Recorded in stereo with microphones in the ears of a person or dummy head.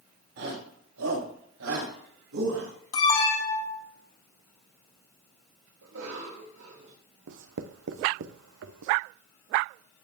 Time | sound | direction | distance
0.4 | a shout | 80° right | 7.5 m
2.9 | an alarm | 30° left (ahead or behind) | 2.5 m
5.8 | a cough | 65° right (ahead or behind) | 3.5 m
7.3 | writing | 65° right (ahead or behind) | 0.8 m